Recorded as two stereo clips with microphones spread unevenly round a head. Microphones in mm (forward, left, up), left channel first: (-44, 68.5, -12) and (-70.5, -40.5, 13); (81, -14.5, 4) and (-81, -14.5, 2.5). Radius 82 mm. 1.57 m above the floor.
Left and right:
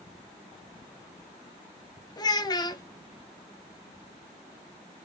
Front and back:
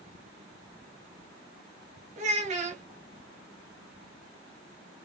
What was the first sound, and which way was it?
A child speaking, 135° left.